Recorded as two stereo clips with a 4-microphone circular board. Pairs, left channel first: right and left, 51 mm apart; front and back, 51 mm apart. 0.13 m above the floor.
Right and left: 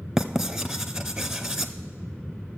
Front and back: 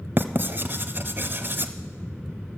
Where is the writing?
170° left, 0.8 m.